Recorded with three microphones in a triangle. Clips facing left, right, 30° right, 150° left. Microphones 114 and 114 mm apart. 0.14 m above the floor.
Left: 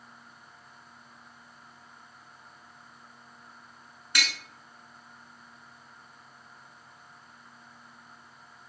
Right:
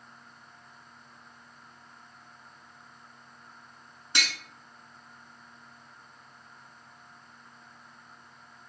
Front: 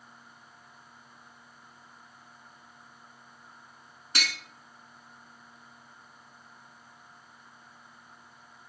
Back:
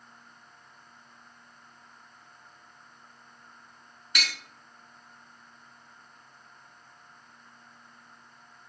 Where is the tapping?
45° right, 0.8 m.